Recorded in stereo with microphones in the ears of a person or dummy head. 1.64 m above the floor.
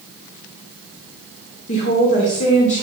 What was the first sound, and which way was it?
A woman speaking, 40° left (ahead or behind).